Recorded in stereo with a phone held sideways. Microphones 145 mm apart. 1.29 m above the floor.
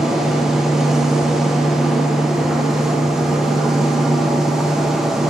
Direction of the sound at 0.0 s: Centre (ahead or behind).